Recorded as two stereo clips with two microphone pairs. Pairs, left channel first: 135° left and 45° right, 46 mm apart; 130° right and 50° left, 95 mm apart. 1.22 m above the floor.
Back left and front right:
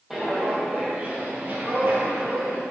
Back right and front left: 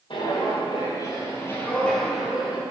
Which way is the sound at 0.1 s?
130° right.